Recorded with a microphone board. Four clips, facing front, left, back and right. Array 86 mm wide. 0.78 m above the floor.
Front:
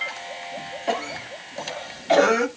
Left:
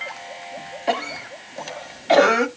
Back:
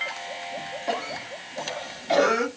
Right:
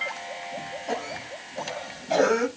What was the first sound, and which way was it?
A cough, 80° left.